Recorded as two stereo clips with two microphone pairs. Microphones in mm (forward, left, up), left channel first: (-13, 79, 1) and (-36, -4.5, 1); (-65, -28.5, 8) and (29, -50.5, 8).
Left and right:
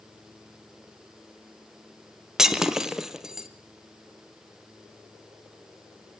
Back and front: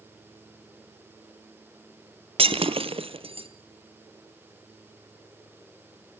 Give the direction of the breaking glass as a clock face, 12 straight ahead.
1 o'clock.